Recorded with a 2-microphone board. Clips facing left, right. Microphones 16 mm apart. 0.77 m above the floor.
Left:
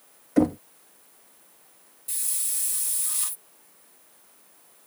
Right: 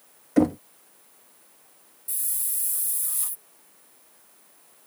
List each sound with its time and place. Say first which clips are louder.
0.4 s knocking: right 1 dB; 10° right (ahead or behind)
2.1 s a hiss: left 3 dB; 40° left (ahead or behind)